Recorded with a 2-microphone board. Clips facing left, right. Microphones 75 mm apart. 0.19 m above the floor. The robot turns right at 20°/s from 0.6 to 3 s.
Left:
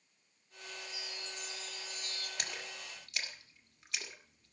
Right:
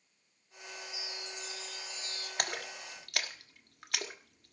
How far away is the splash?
About 1.6 m.